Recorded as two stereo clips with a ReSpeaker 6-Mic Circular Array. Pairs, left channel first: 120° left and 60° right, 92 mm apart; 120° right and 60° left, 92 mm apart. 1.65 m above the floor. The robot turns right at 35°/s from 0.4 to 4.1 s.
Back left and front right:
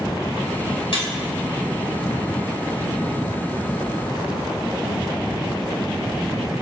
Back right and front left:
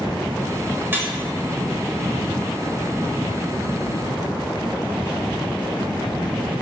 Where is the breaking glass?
125° left, 3.5 m; by 1.1 s 130° left, 3.5 m.